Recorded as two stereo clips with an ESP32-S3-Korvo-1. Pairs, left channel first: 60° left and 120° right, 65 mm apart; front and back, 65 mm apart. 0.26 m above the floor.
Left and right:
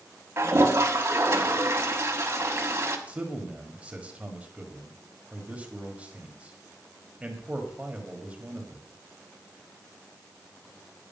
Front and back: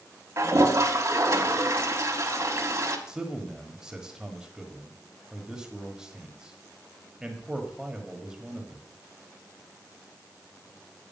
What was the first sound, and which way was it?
A toilet flushing, 155° right.